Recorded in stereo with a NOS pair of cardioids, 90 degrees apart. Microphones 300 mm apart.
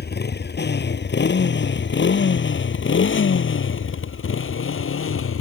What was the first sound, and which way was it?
A motorcycle, 35° left.